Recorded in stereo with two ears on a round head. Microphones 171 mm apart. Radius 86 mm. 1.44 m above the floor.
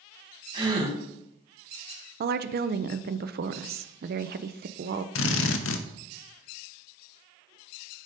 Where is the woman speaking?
55° right (ahead or behind), 0.5 m.